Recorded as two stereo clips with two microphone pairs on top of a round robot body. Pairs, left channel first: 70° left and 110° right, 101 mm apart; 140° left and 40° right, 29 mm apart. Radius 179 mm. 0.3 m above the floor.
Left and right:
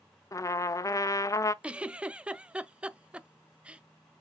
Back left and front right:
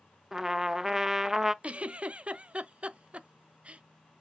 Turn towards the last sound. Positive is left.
turn(degrees=-45)